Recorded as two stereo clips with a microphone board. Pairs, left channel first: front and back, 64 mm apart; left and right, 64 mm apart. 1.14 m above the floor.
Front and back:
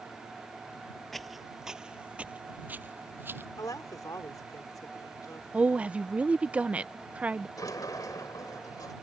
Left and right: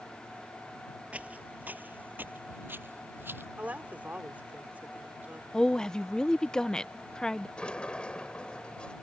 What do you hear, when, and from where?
1.1 s footsteps: 80° right; by 3.5 s 135° right
3.6 s a woman speaking: 25° right
5.5 s a woman speaking: 155° left
7.6 s a sliding door: 15° left